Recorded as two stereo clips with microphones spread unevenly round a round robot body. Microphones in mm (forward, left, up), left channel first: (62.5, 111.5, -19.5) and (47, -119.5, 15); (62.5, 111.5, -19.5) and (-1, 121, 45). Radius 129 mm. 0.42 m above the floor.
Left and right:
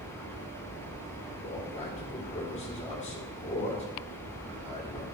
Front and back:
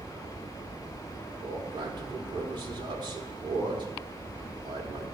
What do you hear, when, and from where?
1.4 s a man speaking: 115° left, 1.6 m